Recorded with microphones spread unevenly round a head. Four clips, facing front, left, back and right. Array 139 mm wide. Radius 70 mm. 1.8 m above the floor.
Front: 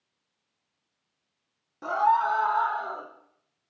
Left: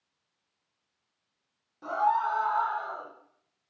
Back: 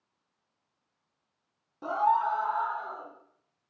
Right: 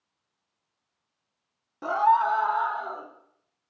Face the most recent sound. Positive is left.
turn(degrees=-45)